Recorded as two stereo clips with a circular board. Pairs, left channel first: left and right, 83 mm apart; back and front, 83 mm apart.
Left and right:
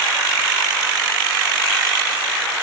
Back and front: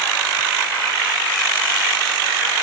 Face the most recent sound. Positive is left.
No sound to turn to.